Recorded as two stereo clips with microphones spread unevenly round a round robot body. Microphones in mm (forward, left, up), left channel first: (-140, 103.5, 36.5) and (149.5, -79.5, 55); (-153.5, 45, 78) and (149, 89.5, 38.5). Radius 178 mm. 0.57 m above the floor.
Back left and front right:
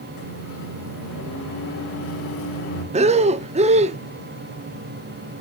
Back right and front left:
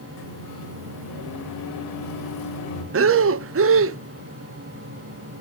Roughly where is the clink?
No clink in this recording.